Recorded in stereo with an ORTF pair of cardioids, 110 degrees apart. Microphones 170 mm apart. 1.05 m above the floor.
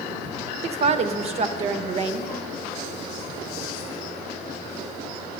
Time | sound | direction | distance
0.6 | a woman speaking | 40° right | 0.8 m